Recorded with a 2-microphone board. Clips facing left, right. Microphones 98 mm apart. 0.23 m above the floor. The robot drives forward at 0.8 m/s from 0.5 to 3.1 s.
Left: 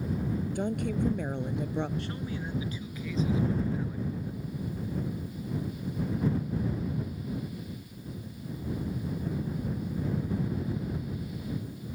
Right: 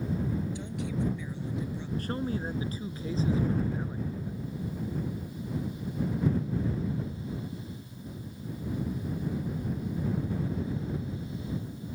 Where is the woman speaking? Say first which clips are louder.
Left 4 dB; 55° left (ahead or behind); by 1.9 s 65° left (ahead or behind).